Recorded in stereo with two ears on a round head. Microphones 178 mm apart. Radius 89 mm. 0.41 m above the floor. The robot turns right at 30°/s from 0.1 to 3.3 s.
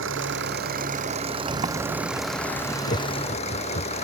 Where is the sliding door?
35° right; by 2.8 s 5° left.